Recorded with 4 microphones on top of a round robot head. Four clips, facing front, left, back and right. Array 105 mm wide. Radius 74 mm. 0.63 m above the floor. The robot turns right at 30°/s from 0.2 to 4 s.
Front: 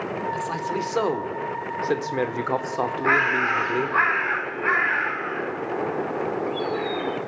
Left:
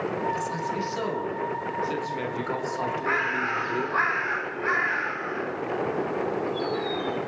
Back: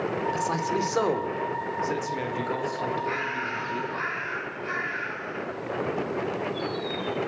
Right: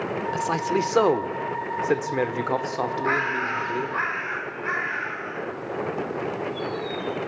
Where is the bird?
10° right, 1.7 m; by 7.2 s 15° left, 1.7 m.